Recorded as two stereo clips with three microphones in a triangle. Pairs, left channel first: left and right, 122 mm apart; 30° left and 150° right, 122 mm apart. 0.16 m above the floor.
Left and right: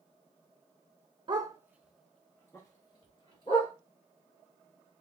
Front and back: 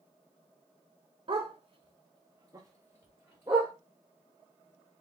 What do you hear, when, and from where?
1.3 s a dog barking: 125° right, 0.8 m; by 3.7 s 135° left, 1.7 m